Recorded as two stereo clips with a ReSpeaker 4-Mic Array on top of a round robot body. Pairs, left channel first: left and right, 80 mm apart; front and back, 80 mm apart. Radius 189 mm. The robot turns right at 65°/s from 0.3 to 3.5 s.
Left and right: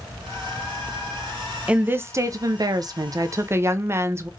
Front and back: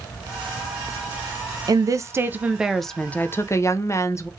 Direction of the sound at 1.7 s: 160° right.